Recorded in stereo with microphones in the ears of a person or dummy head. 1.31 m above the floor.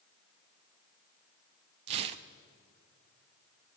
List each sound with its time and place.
1.9 s tearing paper: 40° right (ahead or behind), 0.7 m